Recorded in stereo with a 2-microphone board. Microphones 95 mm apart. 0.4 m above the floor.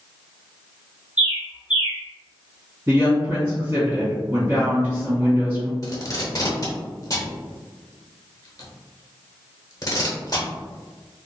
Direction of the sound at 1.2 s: 15° right (ahead or behind).